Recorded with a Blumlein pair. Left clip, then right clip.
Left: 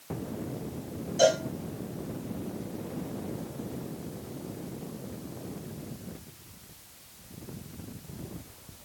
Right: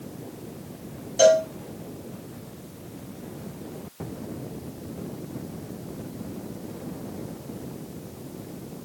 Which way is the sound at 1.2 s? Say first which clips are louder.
Right 6 dB; 20° right.